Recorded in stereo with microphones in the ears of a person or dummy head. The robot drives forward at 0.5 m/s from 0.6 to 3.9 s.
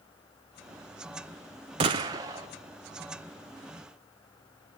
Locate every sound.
1.8 s a gunshot: 25° right (ahead or behind), 0.7 m; by 2.5 s 15° right (ahead or behind), 1.0 m